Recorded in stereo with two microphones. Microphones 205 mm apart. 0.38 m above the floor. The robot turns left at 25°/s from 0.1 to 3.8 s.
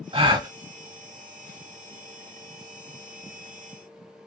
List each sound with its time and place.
0.1 s a gasp: 30° right (ahead or behind), 0.8 m; by 0.5 s 20° right (ahead or behind), 0.8 m